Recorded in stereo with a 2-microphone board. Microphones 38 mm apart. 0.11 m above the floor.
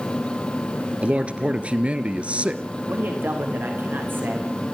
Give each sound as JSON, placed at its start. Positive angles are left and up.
{"t": 1.0, "sound": "a man speaking", "side_deg": -35, "distance_m": 1.5}
{"t": 2.9, "sound": "a man speaking", "side_deg": -65, "distance_m": 7.0}